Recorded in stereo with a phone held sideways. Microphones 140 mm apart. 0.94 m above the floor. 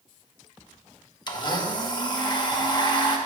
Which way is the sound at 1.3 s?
30° left (ahead or behind).